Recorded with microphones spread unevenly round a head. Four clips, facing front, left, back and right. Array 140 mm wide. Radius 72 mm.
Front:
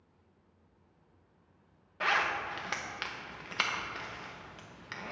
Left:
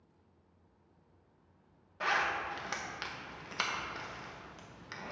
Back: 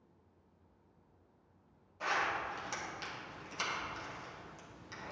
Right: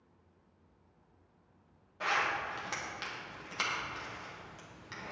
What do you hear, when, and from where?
2.0 s a zipper: 15° left, 1.2 m